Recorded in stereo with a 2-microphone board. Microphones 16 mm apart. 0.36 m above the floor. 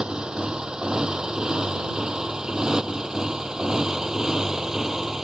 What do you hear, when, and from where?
0.0 s a motorcycle: 50° right (ahead or behind); by 5.2 s 25° right (ahead or behind)